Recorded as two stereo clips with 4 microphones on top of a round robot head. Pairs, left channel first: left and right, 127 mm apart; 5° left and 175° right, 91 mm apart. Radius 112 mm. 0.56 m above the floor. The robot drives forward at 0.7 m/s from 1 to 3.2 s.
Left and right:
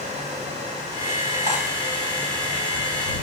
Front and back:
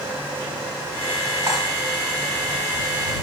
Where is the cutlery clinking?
115° right, 1.7 m; by 1.6 s 120° right, 1.8 m.